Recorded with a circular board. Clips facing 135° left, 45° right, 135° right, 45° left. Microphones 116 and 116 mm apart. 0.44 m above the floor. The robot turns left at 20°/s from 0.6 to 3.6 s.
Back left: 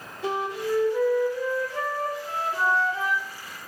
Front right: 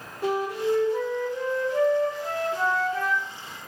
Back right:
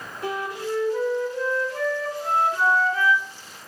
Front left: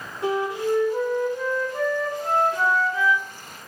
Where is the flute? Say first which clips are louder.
Front right 3 dB, front left 5 dB; 20° right, 3.5 m; by 3.2 s 75° right, 3.5 m.